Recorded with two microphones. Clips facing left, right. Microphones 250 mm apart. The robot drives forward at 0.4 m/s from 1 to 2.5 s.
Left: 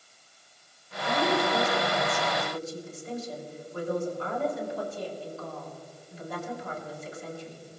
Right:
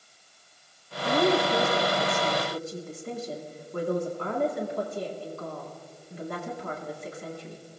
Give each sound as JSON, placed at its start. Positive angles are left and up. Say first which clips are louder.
{"t": 1.0, "sound": "a woman speaking", "louder": "right 4 dB", "side_deg": -70, "distance_m": 3.0}